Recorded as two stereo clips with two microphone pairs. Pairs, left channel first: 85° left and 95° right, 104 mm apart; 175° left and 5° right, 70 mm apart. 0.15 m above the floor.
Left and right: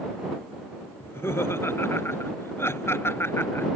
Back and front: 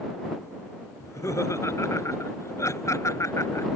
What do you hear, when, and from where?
1.0 s laughter: 150° left